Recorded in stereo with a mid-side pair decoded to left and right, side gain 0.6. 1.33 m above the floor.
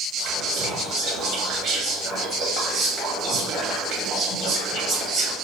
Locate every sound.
0.2 s whispering: 45° right, 1.0 m